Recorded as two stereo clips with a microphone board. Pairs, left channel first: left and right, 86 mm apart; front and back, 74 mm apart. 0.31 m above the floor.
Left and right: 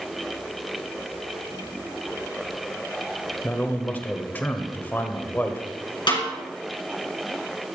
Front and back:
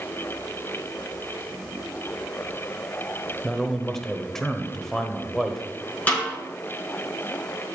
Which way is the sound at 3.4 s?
75° left.